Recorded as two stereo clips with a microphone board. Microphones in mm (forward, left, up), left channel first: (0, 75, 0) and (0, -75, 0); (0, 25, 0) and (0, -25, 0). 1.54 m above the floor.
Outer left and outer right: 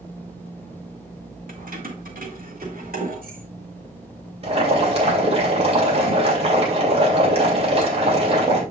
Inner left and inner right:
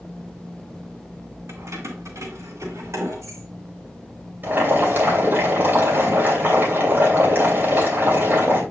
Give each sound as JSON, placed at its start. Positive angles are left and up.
{"t": 1.5, "sound": "keys jangling", "side_deg": -70, "distance_m": 1.4}
{"t": 4.4, "sound": "boiling", "side_deg": -40, "distance_m": 2.5}